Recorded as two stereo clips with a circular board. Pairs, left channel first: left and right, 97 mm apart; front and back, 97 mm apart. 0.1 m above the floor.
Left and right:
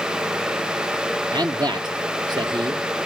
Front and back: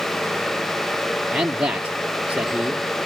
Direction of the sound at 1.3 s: 110° right.